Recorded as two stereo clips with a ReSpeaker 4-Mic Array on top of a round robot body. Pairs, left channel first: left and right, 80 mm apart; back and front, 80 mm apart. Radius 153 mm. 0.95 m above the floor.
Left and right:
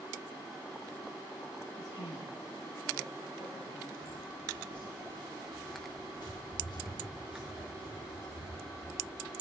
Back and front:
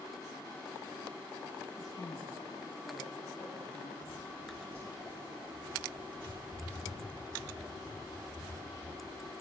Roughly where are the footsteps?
Ahead left.